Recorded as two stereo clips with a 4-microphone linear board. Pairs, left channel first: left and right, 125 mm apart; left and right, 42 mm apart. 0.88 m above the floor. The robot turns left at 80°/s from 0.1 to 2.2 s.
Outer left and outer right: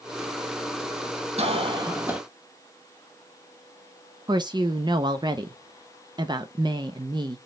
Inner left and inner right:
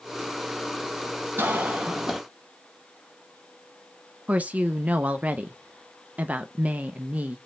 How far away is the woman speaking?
About 0.6 m.